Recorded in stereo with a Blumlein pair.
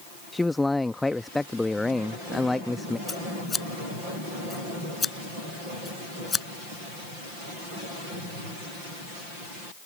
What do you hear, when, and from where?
0.3 s a man speaking: 5° left
3.1 s scissors: 15° left